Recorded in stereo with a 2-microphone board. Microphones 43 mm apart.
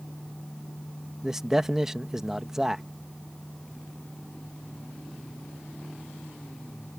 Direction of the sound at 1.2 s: 10° right (ahead or behind).